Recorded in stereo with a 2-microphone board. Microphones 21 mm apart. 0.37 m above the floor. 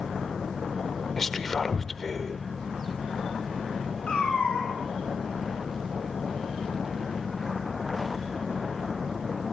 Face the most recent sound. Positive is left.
turn(degrees=80)